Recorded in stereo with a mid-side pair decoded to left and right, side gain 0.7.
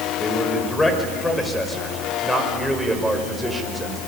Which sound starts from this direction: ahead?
A man speaking, at 0.2 s.